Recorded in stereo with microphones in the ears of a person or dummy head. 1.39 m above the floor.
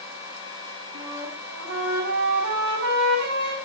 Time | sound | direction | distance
0.9 | a flute | 70° right (ahead or behind) | 5 m